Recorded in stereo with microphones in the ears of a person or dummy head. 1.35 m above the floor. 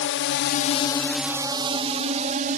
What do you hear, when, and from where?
0.0 s a drone: 65° left (ahead or behind); by 2.6 s 40° right (ahead or behind)